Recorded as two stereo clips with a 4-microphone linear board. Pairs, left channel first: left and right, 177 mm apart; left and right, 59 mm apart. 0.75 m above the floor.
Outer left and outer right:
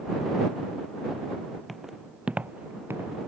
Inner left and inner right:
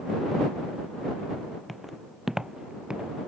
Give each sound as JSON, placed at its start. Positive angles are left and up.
{"t": 1.7, "sound": "footsteps", "side_deg": 0}